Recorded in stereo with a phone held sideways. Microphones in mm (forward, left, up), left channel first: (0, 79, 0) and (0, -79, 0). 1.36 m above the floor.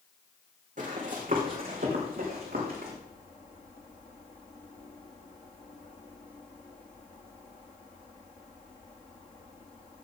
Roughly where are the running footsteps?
Right.